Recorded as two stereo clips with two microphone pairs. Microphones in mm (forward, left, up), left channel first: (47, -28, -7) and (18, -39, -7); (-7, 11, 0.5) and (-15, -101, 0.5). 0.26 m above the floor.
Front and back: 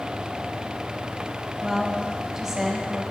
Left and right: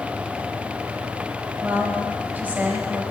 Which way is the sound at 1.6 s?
105° right.